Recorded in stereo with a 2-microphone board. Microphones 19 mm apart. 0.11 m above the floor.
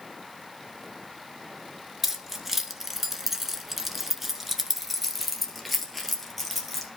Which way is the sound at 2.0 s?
15° right (ahead or behind).